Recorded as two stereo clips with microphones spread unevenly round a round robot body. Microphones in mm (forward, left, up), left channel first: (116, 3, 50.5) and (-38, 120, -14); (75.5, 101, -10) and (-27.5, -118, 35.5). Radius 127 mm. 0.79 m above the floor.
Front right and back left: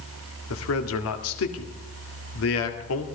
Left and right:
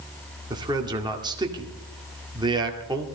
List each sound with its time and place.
0.5 s a man speaking: 40° right, 2 m